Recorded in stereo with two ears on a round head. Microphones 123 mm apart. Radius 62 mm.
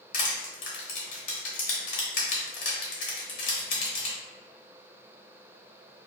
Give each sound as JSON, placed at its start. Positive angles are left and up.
{"t": 0.1, "sound": "crushing", "side_deg": 60, "distance_m": 0.8}